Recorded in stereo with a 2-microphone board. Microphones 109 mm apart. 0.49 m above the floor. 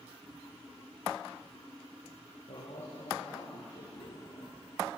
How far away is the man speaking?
About 7.5 m.